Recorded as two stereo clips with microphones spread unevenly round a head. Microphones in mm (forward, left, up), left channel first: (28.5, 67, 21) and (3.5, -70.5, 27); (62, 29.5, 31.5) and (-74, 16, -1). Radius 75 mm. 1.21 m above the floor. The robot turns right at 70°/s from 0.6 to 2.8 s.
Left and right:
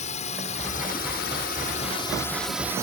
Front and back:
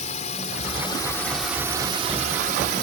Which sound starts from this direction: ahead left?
A drone, at 0.0 s.